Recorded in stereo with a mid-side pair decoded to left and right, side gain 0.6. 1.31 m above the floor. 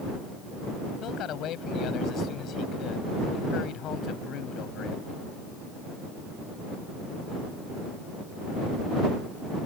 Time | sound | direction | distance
1.0 | a man speaking | 60° left | ?